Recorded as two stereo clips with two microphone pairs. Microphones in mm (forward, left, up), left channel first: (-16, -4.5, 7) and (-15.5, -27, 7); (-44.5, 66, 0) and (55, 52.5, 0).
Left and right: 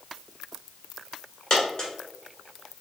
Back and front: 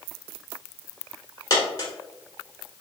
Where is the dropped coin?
125° left, 1.3 m.